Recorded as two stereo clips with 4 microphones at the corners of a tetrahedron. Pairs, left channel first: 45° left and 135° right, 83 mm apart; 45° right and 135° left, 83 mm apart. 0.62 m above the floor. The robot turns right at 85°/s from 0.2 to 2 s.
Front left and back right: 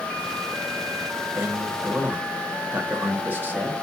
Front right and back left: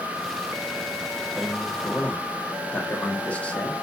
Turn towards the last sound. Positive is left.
turn(degrees=-100)